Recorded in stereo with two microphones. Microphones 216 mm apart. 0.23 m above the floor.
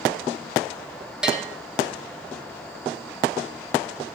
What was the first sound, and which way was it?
A bell, 5° right (ahead or behind).